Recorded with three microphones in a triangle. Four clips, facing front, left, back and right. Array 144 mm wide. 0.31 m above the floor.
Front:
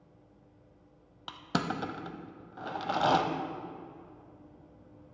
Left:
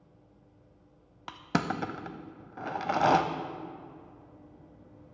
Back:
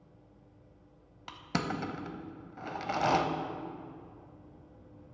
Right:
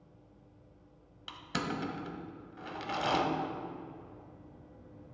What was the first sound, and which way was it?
Crushing, 70° left.